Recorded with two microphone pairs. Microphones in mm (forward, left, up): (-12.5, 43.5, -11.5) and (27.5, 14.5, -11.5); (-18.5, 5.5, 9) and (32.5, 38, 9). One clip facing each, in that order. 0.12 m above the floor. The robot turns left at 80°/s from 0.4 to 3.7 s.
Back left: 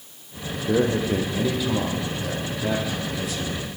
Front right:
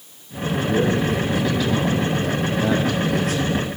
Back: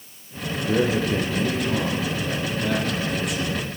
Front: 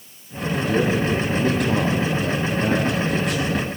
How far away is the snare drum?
I don't hear a snare drum.